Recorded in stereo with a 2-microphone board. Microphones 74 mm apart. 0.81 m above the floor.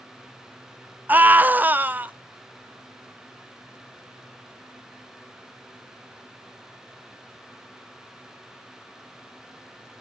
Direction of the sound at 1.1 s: 25° right (ahead or behind).